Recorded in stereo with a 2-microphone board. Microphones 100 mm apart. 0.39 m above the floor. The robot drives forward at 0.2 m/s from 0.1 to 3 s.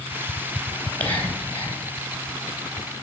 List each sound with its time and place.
0.7 s whispering: 20° left (ahead or behind), 2.5 m; by 1.8 s 15° left (ahead or behind), 3 m